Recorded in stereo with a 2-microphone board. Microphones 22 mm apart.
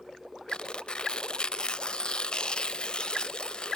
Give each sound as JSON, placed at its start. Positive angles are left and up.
{"t": 0.5, "sound": "tearing paper", "side_deg": 35, "distance_m": 0.7}